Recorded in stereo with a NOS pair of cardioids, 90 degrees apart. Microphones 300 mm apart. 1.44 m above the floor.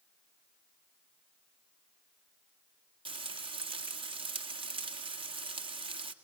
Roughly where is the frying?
Ahead.